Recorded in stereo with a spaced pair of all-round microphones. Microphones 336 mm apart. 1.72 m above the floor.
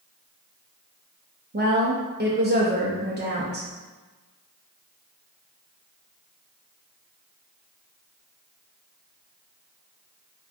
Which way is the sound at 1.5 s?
30° right (ahead or behind).